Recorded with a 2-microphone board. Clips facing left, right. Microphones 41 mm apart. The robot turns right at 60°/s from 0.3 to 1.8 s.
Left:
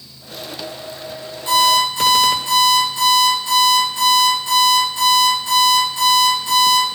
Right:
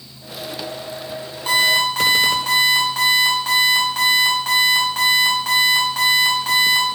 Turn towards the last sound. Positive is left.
turn(degrees=-75)  # may be behind; listen again after turning